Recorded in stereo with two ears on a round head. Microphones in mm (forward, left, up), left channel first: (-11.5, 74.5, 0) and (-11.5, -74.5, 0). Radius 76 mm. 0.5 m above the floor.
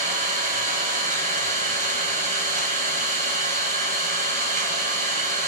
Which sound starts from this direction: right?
An engine running, at 0.0 s.